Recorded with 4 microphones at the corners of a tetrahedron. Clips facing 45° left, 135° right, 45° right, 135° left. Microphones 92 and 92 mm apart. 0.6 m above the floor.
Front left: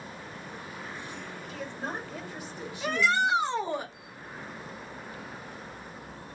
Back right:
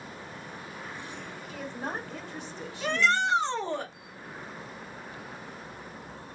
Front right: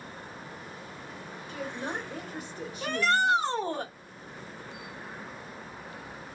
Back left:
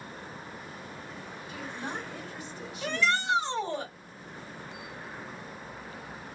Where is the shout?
35° right, 1.0 m.